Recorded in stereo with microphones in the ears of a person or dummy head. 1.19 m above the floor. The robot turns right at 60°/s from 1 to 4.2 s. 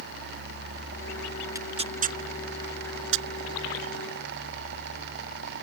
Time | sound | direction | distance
1.6 | tearing paper | 15° right (ahead or behind) | ?